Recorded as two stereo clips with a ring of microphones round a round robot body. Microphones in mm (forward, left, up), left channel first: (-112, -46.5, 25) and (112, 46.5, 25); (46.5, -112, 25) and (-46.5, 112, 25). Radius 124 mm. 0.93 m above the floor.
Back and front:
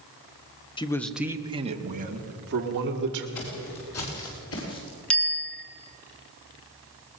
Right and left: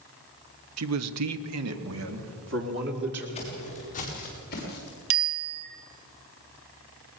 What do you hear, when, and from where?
0.8 s a man speaking: 135° left, 1.1 m; by 3.2 s 65° left, 3 m
3.4 s footsteps: 135° right, 6.5 m; by 5.0 s 115° right, 6.5 m
5.1 s a bicycle bell: 115° left, 2.5 m